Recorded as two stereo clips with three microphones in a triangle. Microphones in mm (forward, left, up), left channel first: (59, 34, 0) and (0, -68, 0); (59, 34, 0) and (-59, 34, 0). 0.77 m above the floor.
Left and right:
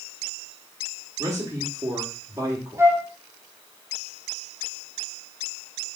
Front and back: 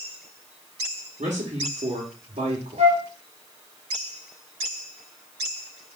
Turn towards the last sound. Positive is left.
turn(degrees=175)